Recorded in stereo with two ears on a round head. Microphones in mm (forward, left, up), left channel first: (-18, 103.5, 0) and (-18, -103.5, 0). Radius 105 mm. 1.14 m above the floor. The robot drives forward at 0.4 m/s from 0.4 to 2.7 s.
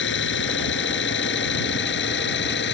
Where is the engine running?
55° left (ahead or behind).